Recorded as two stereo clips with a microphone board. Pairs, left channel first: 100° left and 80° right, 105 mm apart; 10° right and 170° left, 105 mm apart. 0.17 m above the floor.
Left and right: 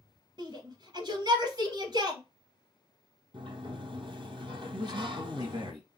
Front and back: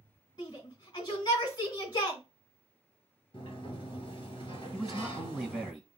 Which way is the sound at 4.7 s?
95° right.